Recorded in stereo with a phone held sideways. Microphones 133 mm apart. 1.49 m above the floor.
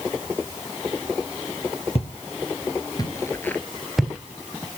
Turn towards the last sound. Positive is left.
turn(degrees=-15)  # may be behind; listen again after turning